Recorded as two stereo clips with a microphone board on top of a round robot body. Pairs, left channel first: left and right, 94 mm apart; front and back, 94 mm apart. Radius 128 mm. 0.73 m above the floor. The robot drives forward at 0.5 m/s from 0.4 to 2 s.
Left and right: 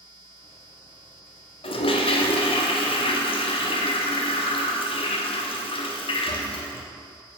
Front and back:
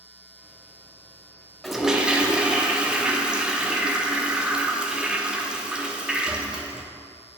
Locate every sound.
1.6 s a toilet flushing: 90° left, 1.0 m; by 6.8 s 100° left, 1.0 m